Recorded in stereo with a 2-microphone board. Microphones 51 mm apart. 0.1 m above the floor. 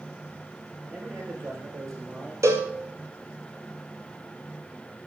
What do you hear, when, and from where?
0.8 s a man speaking: 60° right (ahead or behind), 8 m
2.4 s a cowbell: 75° right (ahead or behind), 1.7 m